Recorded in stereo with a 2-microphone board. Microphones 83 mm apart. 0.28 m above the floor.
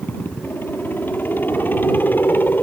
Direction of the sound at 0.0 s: 25° left (ahead or behind).